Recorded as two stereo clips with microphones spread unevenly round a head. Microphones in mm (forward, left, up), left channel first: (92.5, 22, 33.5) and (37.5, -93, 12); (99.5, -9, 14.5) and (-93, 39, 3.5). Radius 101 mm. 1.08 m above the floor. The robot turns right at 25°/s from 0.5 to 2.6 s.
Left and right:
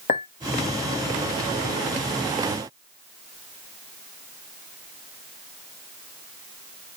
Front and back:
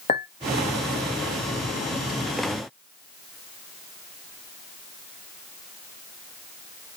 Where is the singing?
I don't hear singing.